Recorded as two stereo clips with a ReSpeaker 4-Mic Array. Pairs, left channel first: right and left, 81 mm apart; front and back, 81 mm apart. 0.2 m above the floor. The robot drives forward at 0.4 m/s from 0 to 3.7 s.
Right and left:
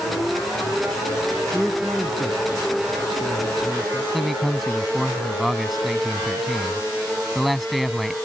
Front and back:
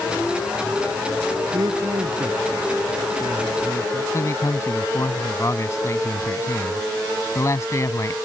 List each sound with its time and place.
1.5 s a man speaking: 175° right; by 4.0 s straight behind
4.1 s a man speaking: straight ahead